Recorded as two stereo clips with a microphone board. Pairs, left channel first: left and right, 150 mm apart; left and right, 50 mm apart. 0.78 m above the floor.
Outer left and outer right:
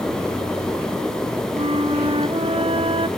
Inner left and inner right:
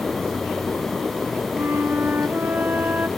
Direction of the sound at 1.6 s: 40° right (ahead or behind).